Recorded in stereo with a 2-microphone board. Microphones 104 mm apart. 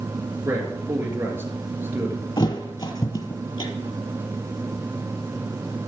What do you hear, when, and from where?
0.5 s a man speaking: 20° right (ahead or behind), 2.5 m
2.4 s a thud: 45° left (ahead or behind), 1.5 m